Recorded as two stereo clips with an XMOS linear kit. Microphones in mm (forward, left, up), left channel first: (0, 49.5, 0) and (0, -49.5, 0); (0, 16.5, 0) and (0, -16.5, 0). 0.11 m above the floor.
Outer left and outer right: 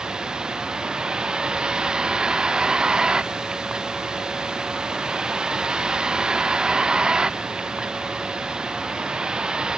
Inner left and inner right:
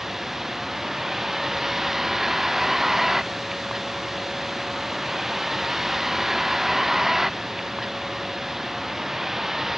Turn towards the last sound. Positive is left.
turn(degrees=-10)  # may be behind; listen again after turning